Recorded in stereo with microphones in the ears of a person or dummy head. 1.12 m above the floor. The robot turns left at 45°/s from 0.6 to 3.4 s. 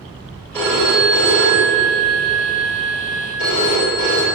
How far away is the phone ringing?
About 3.5 m.